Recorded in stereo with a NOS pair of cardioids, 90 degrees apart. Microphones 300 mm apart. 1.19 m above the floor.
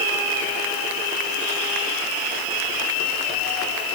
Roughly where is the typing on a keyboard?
I don't hear typing on a keyboard.